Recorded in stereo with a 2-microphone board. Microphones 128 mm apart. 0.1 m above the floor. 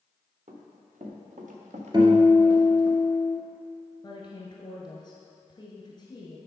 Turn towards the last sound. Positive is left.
turn(degrees=35)  # may be behind; listen again after turning